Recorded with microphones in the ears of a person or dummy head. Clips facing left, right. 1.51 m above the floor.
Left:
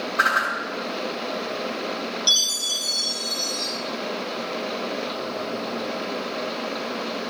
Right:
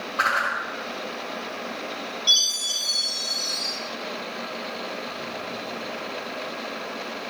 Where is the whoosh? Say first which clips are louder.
Left 2 dB; 15° left (ahead or behind), 6 m.